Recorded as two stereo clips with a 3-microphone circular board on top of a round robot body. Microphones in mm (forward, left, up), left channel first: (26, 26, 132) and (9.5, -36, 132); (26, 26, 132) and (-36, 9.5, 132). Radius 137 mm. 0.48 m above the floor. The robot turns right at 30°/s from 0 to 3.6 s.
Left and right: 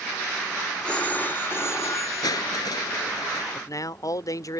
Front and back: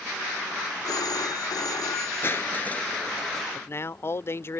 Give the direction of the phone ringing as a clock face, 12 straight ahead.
12 o'clock.